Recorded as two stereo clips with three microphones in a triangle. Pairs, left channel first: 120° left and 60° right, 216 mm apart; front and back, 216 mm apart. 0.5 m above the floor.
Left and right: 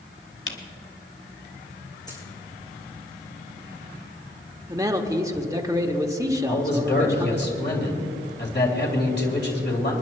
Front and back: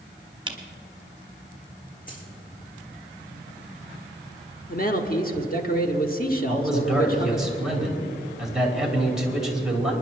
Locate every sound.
0.5 s a camera shutter: 115° left, 1.4 m
2.1 s a dropped coin: 50° left, 4 m
4.7 s a man speaking: 10° left, 1.2 m
6.5 s a man speaking: 95° left, 2.5 m